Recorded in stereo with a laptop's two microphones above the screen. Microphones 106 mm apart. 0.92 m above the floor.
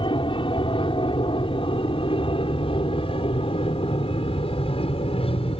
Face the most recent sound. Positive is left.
turn(degrees=65)  # may be behind; listen again after turning